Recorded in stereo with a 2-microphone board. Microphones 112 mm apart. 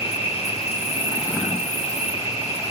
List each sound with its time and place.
0.0 s an insect: 65° left (ahead or behind), 2.5 m